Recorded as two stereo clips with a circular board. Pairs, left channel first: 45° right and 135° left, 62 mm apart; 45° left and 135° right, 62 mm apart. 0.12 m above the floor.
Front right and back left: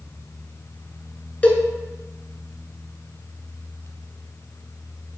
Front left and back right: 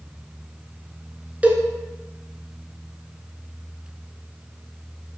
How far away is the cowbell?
About 0.6 m.